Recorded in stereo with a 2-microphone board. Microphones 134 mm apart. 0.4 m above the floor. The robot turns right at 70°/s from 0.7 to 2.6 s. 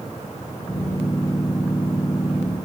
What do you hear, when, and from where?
Only background noise.